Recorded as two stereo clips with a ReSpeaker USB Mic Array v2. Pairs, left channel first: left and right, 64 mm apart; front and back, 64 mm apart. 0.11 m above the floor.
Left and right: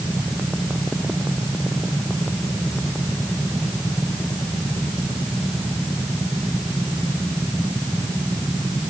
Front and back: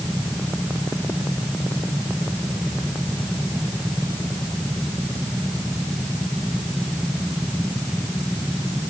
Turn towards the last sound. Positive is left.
No sound to turn to.